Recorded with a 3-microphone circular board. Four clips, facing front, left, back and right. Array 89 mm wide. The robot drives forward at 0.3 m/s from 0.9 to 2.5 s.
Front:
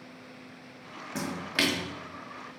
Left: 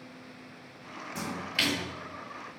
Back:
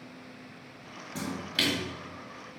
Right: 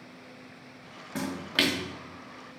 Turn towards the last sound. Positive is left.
turn(degrees=-70)